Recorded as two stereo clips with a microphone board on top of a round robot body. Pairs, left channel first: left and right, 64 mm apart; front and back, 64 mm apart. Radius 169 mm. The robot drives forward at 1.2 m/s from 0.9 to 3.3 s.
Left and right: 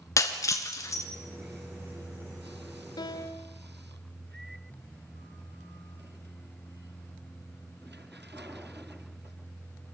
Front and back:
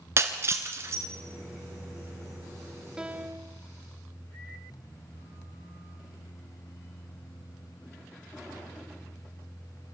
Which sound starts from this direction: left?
A piano, at 3.0 s.